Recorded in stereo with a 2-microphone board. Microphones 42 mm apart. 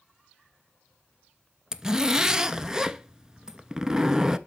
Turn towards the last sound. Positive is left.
turn(degrees=-15)  # may be behind; listen again after turning